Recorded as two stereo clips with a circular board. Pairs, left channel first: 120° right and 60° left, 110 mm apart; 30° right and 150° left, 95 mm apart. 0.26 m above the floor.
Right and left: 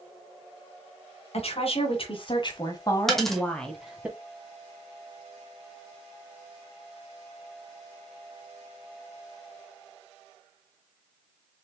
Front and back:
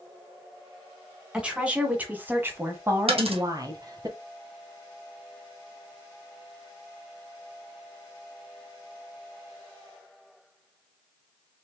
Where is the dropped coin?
150° left, 1.0 m.